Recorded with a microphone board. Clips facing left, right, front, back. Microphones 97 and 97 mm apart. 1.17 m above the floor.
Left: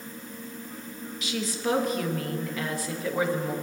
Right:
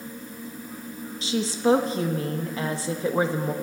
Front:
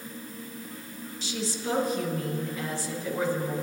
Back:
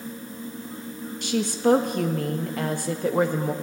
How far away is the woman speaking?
About 1.1 m.